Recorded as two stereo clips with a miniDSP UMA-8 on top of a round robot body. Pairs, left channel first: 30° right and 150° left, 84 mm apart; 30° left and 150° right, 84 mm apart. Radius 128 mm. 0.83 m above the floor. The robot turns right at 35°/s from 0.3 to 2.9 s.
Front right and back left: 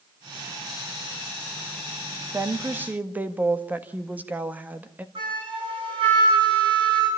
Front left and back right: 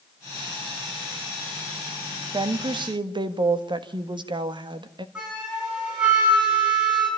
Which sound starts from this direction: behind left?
A flute, at 5.2 s.